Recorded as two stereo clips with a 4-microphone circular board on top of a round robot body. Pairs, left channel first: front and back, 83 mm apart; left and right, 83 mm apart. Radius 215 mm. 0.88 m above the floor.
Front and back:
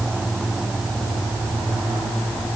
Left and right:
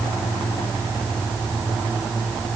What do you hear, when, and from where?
Only background noise.